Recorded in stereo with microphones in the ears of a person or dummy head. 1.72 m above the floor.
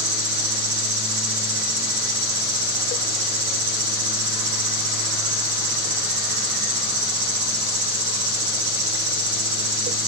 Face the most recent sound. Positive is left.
turn(degrees=-65)  # may be behind; listen again after turning